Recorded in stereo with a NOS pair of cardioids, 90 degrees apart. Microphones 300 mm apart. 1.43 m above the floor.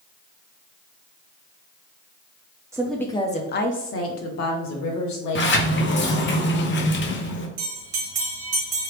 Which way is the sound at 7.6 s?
60° right.